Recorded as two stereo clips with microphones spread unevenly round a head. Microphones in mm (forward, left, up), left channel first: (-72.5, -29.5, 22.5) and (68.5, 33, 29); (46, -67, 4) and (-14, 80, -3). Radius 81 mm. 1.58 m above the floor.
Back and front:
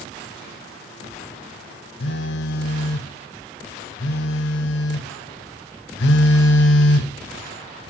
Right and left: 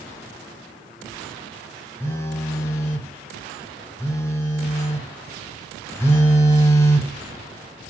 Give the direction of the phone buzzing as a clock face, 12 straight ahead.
5 o'clock.